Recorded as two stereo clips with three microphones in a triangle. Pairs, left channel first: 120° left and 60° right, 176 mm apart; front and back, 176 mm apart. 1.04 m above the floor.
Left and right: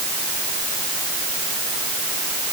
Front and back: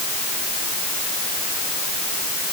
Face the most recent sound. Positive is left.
No sound to turn to.